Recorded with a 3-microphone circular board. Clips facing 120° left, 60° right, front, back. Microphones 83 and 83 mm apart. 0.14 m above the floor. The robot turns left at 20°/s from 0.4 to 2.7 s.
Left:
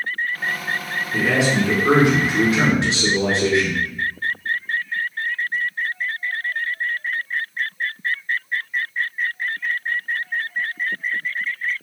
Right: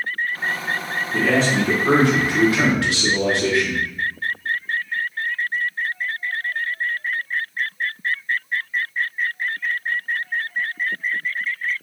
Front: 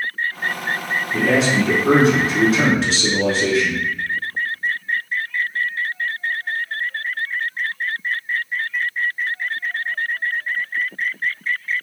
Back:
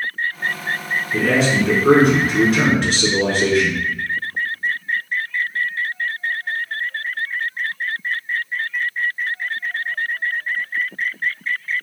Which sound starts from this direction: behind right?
A man speaking, at 1.1 s.